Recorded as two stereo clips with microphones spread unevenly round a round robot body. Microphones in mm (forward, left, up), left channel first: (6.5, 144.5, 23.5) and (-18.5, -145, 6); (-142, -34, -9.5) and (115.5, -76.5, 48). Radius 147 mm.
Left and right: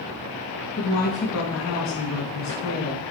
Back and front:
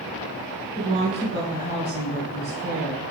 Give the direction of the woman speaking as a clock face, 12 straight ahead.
10 o'clock.